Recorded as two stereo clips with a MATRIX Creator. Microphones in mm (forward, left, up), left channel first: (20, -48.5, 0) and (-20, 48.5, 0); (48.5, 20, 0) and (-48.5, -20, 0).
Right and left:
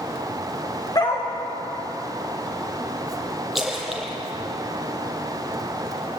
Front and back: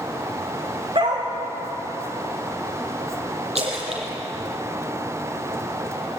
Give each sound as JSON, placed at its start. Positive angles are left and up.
{"t": 0.9, "sound": "a dog barking", "azimuth_deg": -120, "distance_m": 5.0}
{"t": 3.5, "sound": "a splash", "azimuth_deg": -160, "distance_m": 5.5}